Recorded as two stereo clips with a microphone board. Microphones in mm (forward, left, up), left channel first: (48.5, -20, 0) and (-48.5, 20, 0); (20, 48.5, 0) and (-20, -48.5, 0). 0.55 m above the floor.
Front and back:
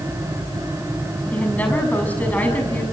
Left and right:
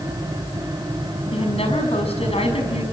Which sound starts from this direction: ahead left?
A woman speaking, at 1.3 s.